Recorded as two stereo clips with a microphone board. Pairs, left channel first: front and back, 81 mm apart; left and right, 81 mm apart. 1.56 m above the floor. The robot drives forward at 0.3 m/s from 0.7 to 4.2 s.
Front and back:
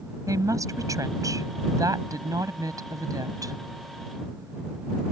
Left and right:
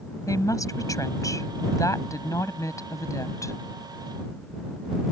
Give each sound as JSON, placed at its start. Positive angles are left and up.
{"t": 0.3, "sound": "a woman speaking", "azimuth_deg": 135}